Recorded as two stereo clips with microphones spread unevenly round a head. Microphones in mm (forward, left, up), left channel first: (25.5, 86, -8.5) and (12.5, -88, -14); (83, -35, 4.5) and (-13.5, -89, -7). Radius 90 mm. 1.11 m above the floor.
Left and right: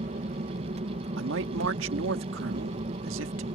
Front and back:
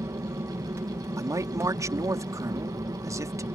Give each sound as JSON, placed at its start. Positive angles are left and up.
{"t": 0.0, "sound": "an aircraft", "azimuth_deg": -110}
{"t": 1.2, "sound": "a man speaking", "azimuth_deg": -90}